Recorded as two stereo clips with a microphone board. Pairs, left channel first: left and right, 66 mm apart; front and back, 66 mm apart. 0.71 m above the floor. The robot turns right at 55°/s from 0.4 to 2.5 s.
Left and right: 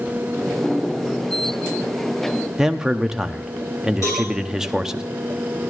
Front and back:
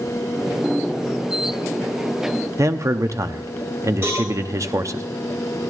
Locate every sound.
2.6 s a man speaking: 170° right, 0.7 m
4.0 s a cowbell: 125° left, 8 m